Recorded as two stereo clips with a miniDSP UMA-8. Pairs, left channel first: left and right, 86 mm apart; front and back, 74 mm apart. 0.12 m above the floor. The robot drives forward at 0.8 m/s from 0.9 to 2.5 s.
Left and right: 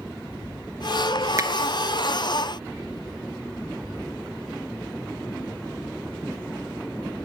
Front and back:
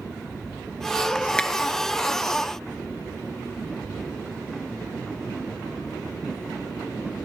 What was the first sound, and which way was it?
A finger snap, 70° right.